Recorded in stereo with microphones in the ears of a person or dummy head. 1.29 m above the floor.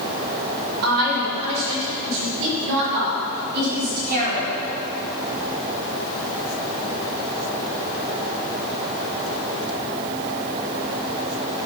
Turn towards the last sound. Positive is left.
turn(degrees=-45)  # may be behind; listen again after turning